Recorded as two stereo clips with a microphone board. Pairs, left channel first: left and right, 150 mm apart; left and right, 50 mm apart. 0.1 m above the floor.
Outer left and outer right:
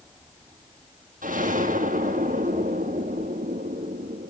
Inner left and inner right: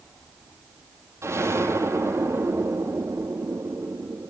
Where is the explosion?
65° right (ahead or behind), 2.5 m.